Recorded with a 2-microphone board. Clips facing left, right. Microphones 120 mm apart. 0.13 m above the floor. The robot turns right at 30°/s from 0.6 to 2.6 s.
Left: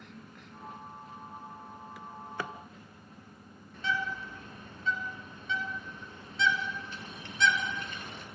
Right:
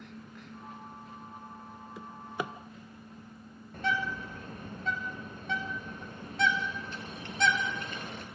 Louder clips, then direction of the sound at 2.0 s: Right 3 dB; 30° right (ahead or behind).